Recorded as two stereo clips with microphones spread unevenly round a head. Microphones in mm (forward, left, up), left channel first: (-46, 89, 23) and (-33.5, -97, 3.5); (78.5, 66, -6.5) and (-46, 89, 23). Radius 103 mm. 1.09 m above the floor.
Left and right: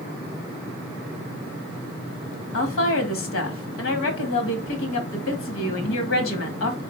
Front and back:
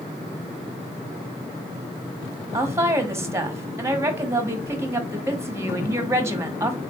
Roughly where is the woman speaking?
Left.